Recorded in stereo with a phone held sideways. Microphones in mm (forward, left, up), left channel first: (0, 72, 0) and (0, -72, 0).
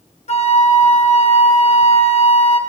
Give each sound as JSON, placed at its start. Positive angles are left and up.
{"t": 0.3, "sound": "a flute", "side_deg": 45, "distance_m": 0.8}